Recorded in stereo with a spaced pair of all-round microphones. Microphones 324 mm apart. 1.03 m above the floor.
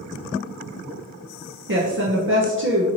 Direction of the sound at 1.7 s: 40° right (ahead or behind).